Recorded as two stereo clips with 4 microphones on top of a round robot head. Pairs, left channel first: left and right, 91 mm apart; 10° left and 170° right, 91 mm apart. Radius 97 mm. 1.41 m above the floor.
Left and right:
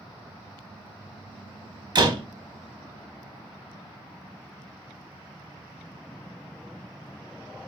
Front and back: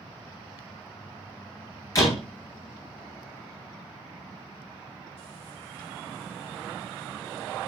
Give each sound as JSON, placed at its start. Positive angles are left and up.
{"t": 1.9, "sound": "a door slam", "azimuth_deg": -50, "distance_m": 2.5}